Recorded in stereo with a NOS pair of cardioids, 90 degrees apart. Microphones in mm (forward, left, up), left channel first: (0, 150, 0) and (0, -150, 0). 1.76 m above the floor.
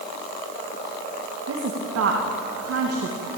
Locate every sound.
1.5 s a woman speaking: 55° right, 2.5 m